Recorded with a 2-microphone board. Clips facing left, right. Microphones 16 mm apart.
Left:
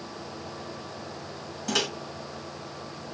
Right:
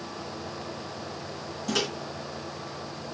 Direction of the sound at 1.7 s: 10° left (ahead or behind).